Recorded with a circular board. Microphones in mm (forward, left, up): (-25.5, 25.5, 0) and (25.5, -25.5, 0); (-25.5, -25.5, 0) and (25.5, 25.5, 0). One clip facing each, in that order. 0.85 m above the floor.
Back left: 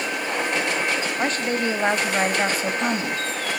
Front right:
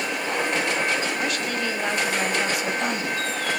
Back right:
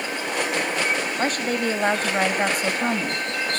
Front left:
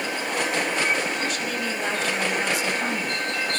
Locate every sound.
1.2 s a woman speaking: 175° right, 1.4 m